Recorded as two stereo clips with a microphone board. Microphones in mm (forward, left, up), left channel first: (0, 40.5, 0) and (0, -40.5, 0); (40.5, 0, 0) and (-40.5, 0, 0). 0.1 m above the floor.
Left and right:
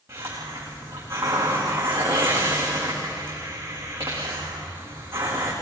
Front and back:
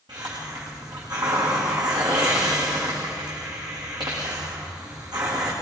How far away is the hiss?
About 8 m.